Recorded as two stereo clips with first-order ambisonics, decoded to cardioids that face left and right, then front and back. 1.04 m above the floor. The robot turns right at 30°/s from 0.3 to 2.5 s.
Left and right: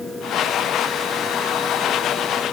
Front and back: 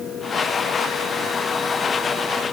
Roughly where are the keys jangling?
No keys jangling in this recording.